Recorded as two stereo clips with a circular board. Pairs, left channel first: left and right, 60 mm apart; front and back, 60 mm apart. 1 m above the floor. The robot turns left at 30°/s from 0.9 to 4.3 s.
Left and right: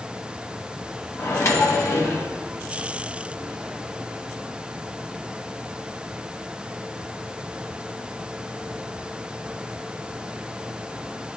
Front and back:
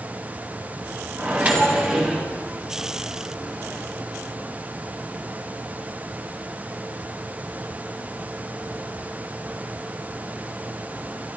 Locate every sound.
1.2 s a microwave: 125° left, 0.8 m; by 2.3 s 95° left, 0.8 m